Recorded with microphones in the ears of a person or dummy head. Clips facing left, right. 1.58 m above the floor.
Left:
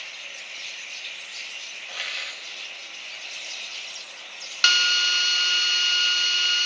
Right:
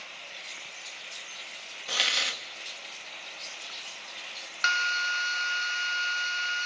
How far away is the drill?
About 1.1 m.